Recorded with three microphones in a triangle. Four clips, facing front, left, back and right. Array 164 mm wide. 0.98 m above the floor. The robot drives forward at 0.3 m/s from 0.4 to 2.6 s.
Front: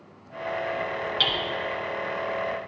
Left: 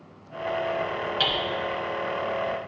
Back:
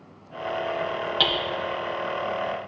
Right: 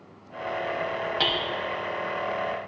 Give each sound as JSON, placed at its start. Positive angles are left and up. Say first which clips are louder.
{"t": 1.2, "sound": "hammering", "louder": "even, back 6 dB", "azimuth_deg": -145, "distance_m": 0.6}